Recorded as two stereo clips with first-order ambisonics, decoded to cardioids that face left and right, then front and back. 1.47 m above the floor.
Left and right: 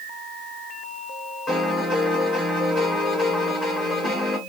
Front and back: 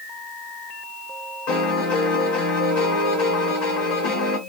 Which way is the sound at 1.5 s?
20° left.